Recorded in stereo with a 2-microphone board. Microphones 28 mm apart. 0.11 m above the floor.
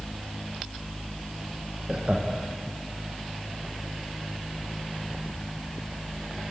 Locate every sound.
1.9 s laughter: 35° right (ahead or behind), 5 m